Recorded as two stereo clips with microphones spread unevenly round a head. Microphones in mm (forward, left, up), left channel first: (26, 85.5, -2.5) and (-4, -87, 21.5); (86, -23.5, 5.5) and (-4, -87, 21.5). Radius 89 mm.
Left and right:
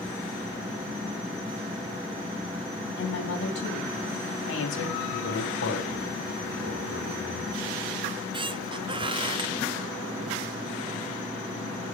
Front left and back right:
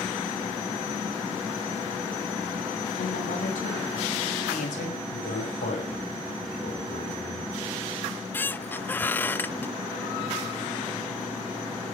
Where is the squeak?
40° right, 0.7 m.